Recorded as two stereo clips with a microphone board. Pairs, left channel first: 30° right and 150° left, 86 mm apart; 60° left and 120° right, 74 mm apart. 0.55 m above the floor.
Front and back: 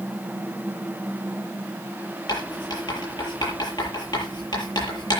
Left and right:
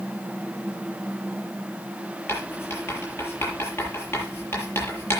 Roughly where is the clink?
No clink in this recording.